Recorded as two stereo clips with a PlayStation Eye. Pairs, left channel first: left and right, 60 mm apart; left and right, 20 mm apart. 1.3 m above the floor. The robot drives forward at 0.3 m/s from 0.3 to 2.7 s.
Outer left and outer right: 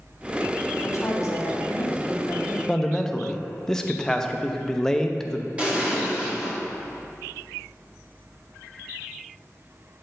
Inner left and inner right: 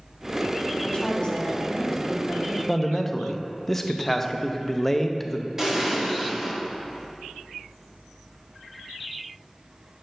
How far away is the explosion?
About 1.1 m.